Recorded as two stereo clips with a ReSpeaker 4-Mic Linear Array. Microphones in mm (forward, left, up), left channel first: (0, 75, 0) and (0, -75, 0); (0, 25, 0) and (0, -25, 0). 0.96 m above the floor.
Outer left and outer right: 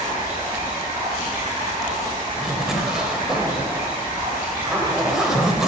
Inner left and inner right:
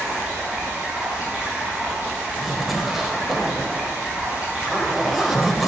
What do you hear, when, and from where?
0.0 s running water: 15° right (ahead or behind), 8.5 m
2.4 s a zipper: 5° right (ahead or behind), 1.6 m